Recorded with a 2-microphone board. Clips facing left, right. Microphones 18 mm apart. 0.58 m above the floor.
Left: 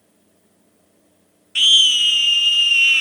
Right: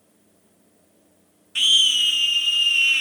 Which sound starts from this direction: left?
A scream, at 1.6 s.